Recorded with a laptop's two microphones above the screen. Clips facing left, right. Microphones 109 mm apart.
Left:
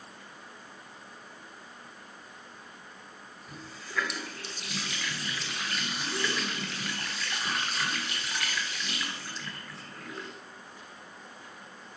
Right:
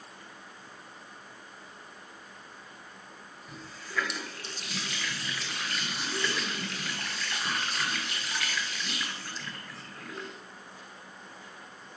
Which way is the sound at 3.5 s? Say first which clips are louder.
Even; centre (ahead or behind).